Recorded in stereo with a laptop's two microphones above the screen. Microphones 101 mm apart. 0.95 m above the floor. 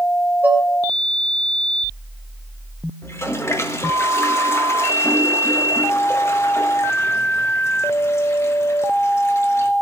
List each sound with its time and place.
0.4 s dishes clattering: 20° right (ahead or behind), 2.5 m
3.0 s a toilet flushing: 25° left (ahead or behind), 1.4 m